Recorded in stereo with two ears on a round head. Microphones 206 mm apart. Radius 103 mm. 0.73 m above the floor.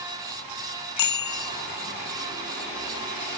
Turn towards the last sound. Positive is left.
turn(degrees=80)